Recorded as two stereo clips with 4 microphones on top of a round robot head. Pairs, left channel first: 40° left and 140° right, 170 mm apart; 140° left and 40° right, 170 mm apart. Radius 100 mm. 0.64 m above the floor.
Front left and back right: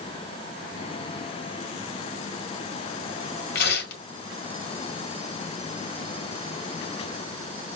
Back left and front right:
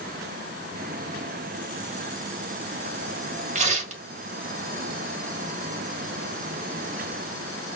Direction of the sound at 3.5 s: 10° left.